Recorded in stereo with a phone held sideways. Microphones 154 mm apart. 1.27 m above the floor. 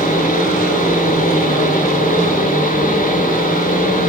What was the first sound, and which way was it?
A fan, 65° left (ahead or behind).